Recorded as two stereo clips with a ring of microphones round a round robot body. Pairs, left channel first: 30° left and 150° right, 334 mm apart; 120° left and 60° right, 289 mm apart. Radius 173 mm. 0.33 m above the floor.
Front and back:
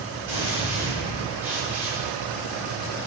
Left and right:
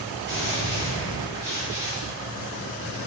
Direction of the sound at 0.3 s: 70° right.